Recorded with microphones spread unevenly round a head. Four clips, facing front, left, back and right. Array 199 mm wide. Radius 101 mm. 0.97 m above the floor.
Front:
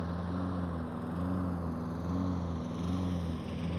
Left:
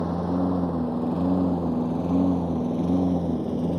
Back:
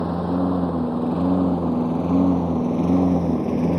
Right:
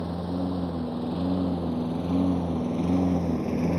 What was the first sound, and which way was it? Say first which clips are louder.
A lawn mower: left 5 dB, back 15 dB; 160° left.